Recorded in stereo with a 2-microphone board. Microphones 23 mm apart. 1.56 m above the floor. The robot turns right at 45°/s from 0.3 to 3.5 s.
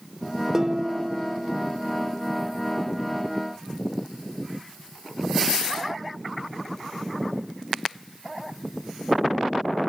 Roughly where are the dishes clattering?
Behind right.